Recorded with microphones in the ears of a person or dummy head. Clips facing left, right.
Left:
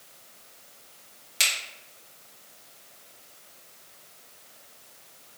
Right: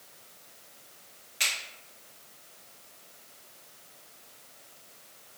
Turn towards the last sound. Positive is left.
turn(degrees=75)  # may be behind; listen again after turning